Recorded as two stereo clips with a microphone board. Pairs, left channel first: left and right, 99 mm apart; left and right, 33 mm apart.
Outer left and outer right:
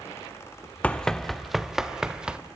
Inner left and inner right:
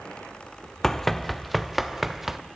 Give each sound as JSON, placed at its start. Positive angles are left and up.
{"t": 0.8, "sound": "running footsteps", "side_deg": 15, "distance_m": 0.7}